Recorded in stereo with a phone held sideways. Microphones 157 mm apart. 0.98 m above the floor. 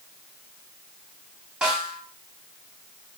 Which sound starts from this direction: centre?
A snare drum, at 1.6 s.